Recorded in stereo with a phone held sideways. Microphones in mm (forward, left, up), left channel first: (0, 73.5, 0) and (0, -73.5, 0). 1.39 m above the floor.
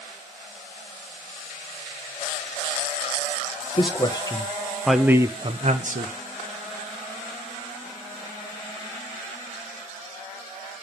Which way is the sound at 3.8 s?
35° left (ahead or behind).